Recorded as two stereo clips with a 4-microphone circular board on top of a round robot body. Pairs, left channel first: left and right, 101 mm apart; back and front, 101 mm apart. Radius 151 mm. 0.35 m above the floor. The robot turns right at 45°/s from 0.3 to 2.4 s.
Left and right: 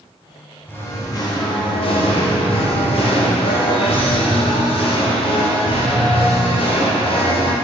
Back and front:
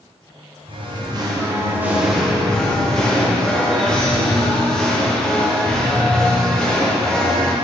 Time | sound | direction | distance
0.7 | singing | 20° left | 1.2 m